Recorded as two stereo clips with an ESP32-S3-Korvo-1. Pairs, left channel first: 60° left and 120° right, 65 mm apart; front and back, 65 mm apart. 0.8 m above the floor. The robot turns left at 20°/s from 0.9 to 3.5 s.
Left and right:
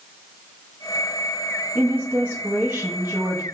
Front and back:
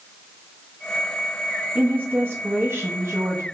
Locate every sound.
1.8 s a woman speaking: 145° right, 0.7 m; by 3.4 s straight behind, 0.7 m